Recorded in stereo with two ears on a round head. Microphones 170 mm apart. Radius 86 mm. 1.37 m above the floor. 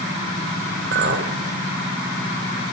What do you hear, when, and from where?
0.9 s a clink: 65° right (ahead or behind), 3 m